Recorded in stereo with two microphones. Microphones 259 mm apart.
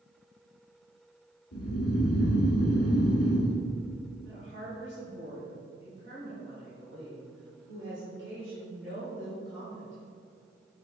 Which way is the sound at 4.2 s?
50° right (ahead or behind).